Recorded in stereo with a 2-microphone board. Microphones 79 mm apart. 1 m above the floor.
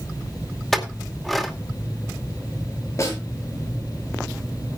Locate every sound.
0.7 s a clink: 5° left (ahead or behind), 2 m
3.0 s a snare drum: 40° left (ahead or behind), 7 m